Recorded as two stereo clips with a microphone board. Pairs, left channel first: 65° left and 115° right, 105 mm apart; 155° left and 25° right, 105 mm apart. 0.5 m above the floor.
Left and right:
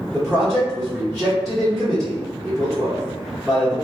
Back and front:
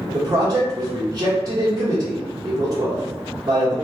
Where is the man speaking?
25° right, 1.1 m.